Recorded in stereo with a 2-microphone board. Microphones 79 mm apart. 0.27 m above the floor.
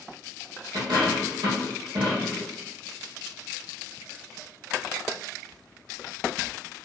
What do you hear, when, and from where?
0.7 s a dropped coin: 75° right (ahead or behind), 2 m